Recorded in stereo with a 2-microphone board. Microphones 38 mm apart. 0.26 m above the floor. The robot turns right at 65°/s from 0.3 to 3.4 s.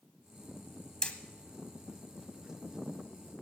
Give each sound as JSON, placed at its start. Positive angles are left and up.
{"t": 1.0, "sound": "hammering", "side_deg": 20, "distance_m": 1.0}